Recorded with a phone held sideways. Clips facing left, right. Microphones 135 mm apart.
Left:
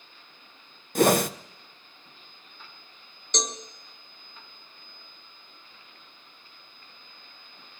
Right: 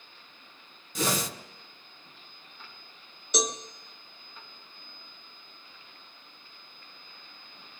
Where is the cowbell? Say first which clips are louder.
Right 3 dB; 5° right (ahead or behind), 1.0 m.